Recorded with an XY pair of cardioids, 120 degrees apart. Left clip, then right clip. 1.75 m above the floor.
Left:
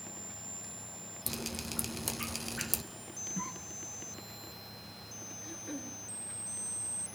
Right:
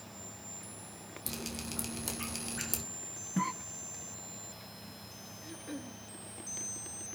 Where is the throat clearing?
Straight ahead, 3.5 m.